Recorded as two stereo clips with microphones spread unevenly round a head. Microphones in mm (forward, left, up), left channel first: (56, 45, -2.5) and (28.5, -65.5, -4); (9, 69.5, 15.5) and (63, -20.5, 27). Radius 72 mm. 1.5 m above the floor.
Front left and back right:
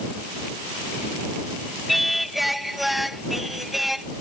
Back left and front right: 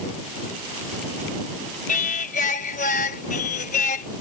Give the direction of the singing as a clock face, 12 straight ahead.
6 o'clock.